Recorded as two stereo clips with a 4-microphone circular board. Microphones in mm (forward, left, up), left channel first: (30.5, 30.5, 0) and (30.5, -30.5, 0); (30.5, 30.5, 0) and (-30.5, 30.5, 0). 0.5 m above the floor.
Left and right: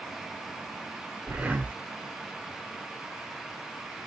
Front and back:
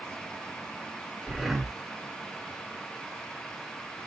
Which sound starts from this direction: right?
Breathing, at 1.3 s.